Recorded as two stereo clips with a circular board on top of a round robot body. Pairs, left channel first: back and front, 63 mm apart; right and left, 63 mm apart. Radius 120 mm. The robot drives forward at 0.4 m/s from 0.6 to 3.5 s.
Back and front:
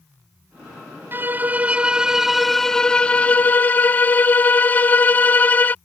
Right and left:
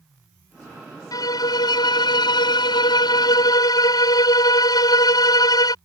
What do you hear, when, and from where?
1.1 s a violin: 60° right; by 5.8 s 115° right